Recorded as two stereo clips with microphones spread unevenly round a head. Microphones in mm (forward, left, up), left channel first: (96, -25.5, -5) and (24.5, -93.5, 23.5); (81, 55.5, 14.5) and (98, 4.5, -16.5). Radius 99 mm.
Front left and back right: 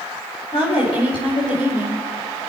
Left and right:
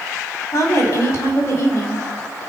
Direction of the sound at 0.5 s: 100° left.